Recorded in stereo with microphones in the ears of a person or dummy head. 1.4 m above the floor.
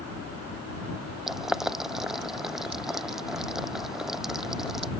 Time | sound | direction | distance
1.3 | boiling | 5° right (ahead or behind) | ?